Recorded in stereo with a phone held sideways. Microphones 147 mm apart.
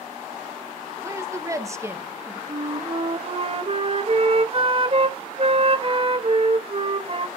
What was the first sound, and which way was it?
A woman speaking, 20° right (ahead or behind).